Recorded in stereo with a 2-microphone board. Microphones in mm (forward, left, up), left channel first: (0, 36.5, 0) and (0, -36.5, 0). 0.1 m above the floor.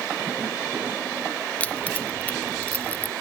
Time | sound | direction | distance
1.6 | keys jangling | 20° left (ahead or behind) | ?